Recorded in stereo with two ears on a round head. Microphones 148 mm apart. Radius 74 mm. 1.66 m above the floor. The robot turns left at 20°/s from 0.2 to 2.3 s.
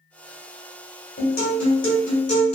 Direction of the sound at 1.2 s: 70° left (ahead or behind).